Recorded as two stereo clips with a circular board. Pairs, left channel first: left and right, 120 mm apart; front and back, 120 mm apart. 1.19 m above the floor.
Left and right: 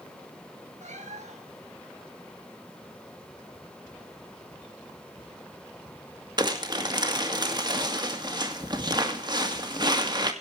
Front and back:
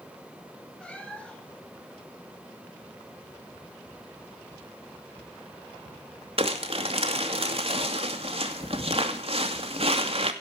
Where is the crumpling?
145° right, 2.5 m.